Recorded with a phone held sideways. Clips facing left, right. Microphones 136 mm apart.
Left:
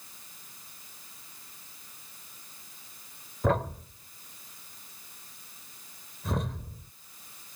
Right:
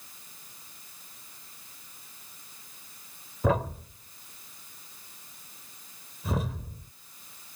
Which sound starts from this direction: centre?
A thud, at 3.4 s.